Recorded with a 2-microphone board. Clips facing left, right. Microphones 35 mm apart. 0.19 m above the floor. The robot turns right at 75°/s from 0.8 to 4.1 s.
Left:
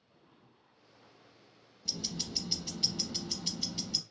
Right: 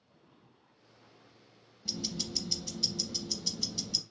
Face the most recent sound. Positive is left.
turn(degrees=160)